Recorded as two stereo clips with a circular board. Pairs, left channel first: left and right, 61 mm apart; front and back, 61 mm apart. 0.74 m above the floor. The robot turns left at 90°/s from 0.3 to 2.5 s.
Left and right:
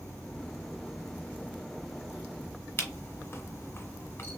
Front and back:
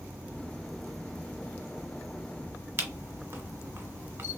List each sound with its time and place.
0.0 s an insect: 140° left, 1.2 m; by 4.4 s 60° right, 1.2 m
2.8 s a camera shutter: 140° left, 1.4 m